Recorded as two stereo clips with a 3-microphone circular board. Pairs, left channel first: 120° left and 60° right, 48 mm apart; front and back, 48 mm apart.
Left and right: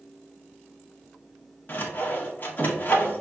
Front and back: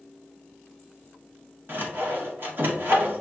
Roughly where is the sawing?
Behind.